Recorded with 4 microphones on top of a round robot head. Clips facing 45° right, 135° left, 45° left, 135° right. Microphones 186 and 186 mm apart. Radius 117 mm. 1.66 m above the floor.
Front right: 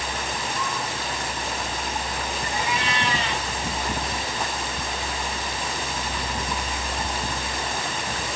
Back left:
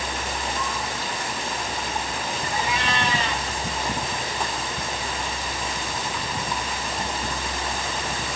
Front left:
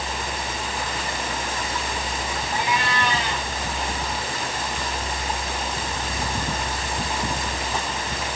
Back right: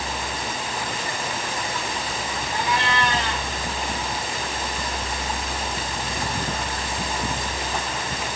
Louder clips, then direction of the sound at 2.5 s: Back left 1 dB, back right 1 dB; 110° left.